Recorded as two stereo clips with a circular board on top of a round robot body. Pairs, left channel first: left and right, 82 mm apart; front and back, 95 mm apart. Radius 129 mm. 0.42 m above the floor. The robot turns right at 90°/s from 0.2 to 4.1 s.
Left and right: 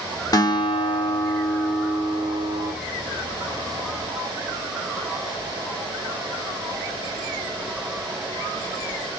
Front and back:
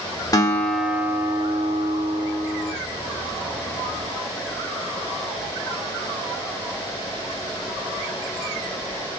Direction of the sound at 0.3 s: 50° left.